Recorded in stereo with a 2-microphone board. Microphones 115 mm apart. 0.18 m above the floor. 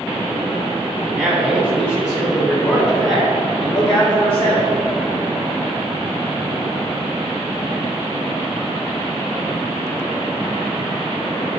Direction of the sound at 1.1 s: Centre (ahead or behind).